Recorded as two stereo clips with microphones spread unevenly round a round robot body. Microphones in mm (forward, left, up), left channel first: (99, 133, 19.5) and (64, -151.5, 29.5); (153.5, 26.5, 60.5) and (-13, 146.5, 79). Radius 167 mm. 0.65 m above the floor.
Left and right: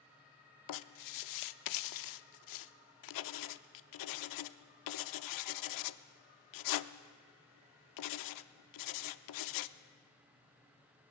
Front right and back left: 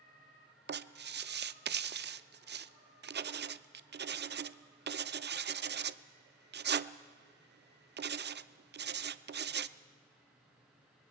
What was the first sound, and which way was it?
Writing, 100° left.